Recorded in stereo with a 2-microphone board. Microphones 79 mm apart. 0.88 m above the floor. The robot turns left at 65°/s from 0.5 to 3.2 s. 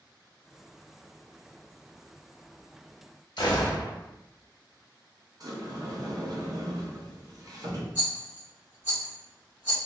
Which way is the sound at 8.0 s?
25° right (ahead or behind).